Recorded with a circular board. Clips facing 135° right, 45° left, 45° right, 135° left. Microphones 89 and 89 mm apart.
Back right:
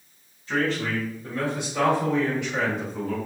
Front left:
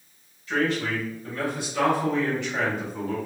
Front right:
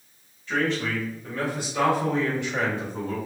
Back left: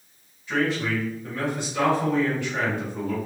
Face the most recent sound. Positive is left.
turn(degrees=-45)